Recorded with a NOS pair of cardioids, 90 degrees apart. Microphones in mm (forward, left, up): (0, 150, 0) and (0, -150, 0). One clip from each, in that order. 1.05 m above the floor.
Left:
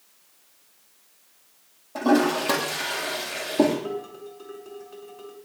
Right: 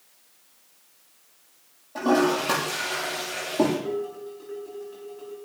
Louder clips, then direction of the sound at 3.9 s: Right 3 dB; 35° left.